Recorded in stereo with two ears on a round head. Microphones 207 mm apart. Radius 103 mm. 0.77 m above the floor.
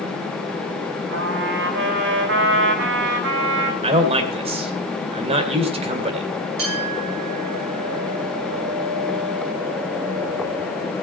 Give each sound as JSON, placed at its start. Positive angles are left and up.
{"t": 1.1, "sound": "a trumpet", "side_deg": -55, "distance_m": 4.0}
{"t": 3.8, "sound": "a man speaking", "side_deg": -25, "distance_m": 2.5}
{"t": 6.6, "sound": "a clink", "side_deg": -65, "distance_m": 8.5}